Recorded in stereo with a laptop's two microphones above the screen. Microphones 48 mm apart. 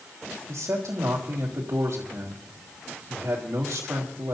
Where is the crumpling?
No crumpling in this recording.